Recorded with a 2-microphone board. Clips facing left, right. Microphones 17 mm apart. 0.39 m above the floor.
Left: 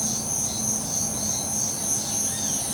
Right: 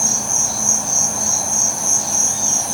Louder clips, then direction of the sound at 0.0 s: Right 9 dB; 65° right (ahead or behind).